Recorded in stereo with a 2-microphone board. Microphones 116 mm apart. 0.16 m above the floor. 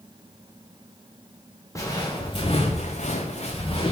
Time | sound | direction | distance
1.8 | footsteps | 25° left (ahead or behind) | 1.1 m